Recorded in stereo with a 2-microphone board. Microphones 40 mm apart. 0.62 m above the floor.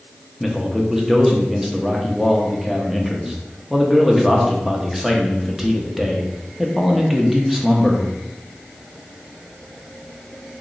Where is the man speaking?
5° right (ahead or behind), 0.6 m.